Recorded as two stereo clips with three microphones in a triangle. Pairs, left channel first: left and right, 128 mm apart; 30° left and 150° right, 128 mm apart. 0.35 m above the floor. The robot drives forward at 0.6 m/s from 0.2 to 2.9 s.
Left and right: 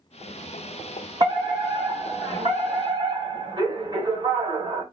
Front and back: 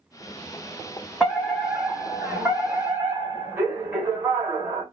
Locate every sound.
1.2 s a fire alarm: 60° right, 2.5 m; by 4.8 s 100° right, 2.5 m